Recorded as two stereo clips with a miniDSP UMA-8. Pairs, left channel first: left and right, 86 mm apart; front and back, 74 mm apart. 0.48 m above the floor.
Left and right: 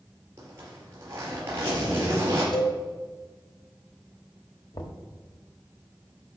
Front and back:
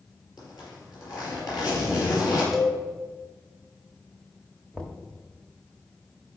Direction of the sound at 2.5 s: 90° left.